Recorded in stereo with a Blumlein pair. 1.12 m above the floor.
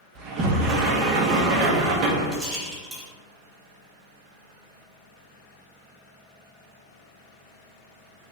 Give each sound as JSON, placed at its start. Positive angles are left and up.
{"t": 0.1, "sound": "a sliding door", "azimuth_deg": -35, "distance_m": 0.6}
{"t": 2.3, "sound": "a rattle", "azimuth_deg": -10, "distance_m": 1.4}